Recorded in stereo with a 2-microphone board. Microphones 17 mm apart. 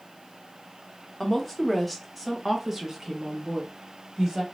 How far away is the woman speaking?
About 1.0 m.